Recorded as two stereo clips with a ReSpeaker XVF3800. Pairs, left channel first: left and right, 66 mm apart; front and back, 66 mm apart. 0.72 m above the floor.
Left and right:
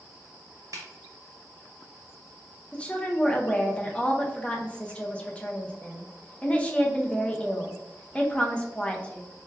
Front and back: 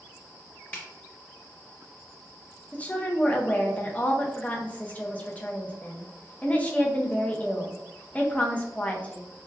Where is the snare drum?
60° right, 1.3 m.